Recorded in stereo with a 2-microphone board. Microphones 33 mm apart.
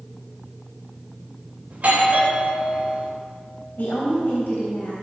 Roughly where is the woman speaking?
Left.